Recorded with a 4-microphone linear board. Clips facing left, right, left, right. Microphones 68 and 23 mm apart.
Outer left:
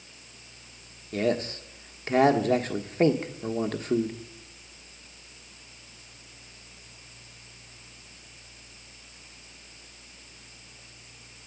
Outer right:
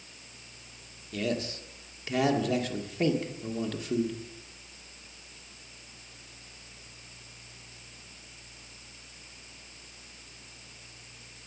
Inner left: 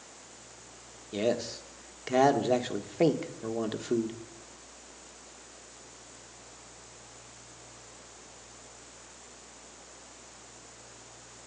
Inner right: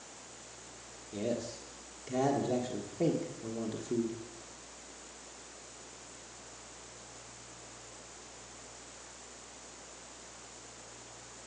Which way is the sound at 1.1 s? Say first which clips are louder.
Outer left 5 dB, inner left 6 dB; 50° left (ahead or behind).